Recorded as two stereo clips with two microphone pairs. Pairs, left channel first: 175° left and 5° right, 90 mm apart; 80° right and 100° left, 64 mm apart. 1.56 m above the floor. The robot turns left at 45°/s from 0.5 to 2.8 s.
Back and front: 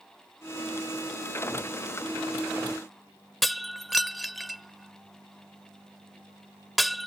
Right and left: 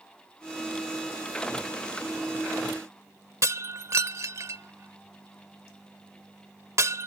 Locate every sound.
3.4 s breaking glass: 90° left